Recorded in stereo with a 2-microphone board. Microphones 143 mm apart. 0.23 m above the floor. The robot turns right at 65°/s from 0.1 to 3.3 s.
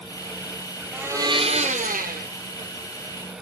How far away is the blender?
About 1.6 m.